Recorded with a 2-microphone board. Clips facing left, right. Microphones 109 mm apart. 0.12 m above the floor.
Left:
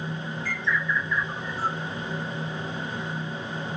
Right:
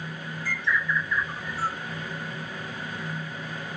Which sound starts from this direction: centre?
A bird, at 0.5 s.